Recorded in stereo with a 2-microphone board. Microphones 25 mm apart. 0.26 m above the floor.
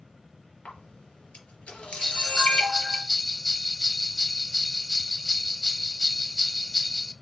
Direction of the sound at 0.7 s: 65° left (ahead or behind).